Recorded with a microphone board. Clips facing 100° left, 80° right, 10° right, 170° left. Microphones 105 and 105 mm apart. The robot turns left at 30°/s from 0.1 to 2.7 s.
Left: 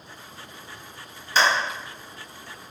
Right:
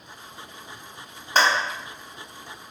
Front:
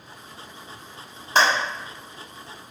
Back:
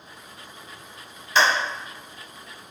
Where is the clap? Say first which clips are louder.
Right 1 dB, front 1 dB; 50° right, 1.1 m; by 1.5 s 55° right, 1.1 m.